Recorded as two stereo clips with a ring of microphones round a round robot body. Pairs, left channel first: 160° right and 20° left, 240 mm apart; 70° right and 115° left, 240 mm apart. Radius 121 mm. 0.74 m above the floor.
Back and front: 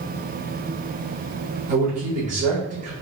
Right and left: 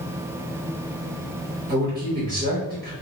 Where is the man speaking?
75° left, 1.3 m.